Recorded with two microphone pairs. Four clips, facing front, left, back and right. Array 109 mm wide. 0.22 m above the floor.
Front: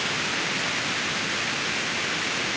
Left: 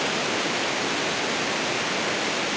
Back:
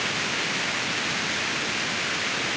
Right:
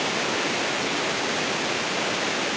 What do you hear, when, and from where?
Only background noise.